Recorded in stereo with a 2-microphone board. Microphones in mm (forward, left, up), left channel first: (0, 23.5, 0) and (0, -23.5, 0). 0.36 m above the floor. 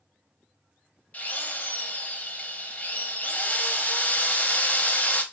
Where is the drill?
40° left (ahead or behind), 0.6 m.